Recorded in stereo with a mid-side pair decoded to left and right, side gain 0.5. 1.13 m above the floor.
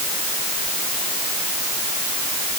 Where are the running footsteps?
No running footsteps in this recording.